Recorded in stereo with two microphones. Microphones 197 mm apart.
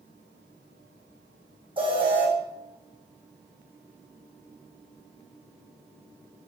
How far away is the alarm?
About 3.5 m.